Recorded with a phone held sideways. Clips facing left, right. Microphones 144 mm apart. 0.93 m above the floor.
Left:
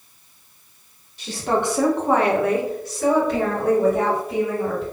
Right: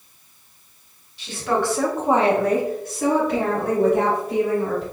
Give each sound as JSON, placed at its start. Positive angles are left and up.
{"t": 1.2, "sound": "a woman speaking", "side_deg": 45, "distance_m": 0.8}